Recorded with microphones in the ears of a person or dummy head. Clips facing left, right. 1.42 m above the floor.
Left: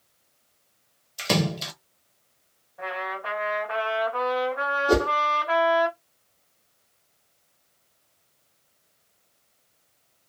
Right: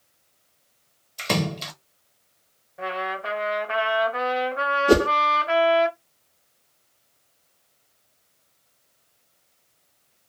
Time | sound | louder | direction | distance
1.2 | a splash | left 1 dB | 5° left (ahead or behind) | 0.7 m
2.8 | a trumpet | right 3 dB | 35° right (ahead or behind) | 1.2 m
4.9 | a whoosh | right 4 dB | 40° right (ahead or behind) | 0.6 m